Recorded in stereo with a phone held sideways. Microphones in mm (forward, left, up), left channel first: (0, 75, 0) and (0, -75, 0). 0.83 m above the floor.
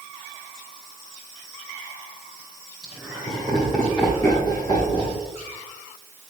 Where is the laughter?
5° right (ahead or behind), 2 m; by 5.2 s 40° left (ahead or behind), 1.5 m.